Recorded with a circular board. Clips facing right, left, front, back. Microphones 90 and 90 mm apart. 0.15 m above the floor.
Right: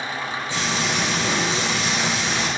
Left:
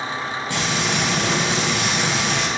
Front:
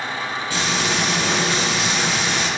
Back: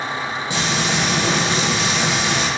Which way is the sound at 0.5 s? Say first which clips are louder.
Left 2 dB, back 1 dB; 115° left.